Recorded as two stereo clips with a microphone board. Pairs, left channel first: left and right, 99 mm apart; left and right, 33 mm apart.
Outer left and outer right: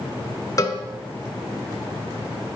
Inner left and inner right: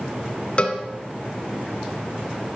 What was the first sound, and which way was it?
A cowbell, 35° left (ahead or behind).